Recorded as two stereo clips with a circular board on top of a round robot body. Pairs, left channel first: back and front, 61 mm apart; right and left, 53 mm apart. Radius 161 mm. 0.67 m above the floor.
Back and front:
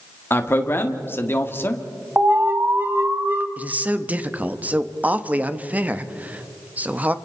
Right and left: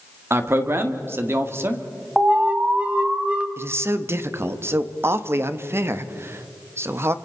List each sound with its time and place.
0.3 s a man speaking: 130° left, 2 m
2.2 s an alarm: 35° left, 2 m
3.6 s a man speaking: 60° left, 1.3 m